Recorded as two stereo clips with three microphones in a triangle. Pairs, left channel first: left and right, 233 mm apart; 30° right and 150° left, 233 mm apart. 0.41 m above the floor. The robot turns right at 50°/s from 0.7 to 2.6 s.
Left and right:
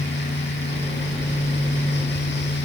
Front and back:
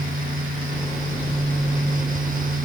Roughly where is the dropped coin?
No dropped coin in this recording.